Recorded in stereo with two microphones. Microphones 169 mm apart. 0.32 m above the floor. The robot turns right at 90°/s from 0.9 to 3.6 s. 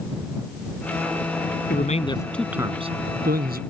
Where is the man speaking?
115° left; by 3.6 s 75° right.